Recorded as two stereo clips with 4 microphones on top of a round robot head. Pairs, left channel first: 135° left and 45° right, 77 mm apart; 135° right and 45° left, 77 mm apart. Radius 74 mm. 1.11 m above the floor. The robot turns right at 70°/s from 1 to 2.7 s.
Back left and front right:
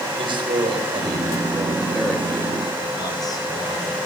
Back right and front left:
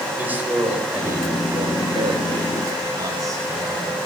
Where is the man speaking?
25° right, 6 m; by 4.0 s 95° left, 6 m.